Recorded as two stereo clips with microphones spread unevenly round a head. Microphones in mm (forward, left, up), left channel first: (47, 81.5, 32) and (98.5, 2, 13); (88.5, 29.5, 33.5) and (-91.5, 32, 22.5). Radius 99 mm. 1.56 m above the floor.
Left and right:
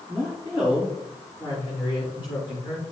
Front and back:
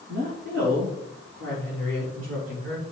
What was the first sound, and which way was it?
A woman speaking, 140° right.